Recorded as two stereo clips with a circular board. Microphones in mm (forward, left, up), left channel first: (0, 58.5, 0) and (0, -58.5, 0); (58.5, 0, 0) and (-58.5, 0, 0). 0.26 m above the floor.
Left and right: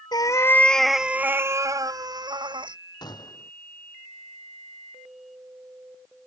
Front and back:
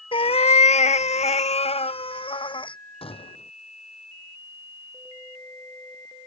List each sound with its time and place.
0.1 s a cat meowing: 40° left; by 2.8 s 45° right
3.0 s a gunshot: 35° left